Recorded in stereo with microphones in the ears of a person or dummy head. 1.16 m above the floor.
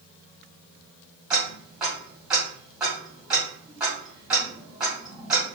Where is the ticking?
Centre (ahead or behind), 1.2 m.